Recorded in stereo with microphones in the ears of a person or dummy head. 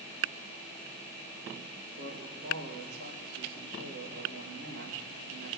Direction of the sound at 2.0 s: 70° right (ahead or behind).